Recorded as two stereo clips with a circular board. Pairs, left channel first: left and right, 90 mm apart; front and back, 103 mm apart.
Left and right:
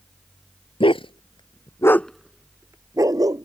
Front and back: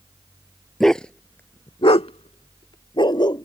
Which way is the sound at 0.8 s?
85° left.